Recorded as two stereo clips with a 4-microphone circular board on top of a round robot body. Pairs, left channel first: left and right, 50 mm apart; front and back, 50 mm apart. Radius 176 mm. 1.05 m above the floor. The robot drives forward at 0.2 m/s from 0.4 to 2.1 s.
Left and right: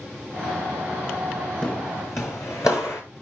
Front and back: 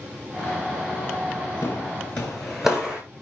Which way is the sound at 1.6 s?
20° left.